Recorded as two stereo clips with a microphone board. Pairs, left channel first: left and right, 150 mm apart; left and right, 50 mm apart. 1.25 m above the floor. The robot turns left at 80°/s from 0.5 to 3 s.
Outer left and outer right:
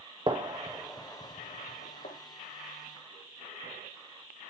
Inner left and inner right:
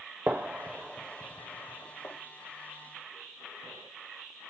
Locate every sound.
0.3 s a gunshot: 30° right (ahead or behind), 0.6 m; by 2.1 s 70° left (ahead or behind), 0.6 m